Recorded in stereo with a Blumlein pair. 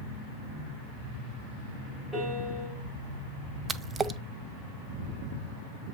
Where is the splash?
15° right, 0.5 m.